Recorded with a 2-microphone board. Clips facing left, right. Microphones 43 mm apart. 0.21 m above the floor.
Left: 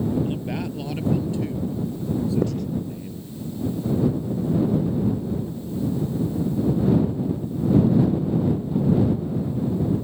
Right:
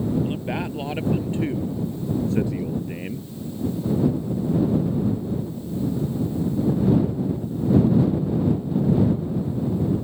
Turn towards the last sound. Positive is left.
turn(degrees=65)  # may be behind; listen again after turning